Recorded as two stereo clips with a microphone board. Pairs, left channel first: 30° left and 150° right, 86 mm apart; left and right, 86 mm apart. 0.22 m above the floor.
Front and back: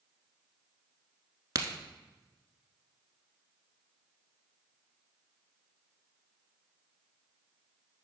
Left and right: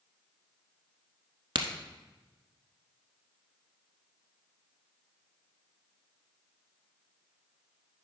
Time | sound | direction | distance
1.6 | a crack | 105° right | 0.9 m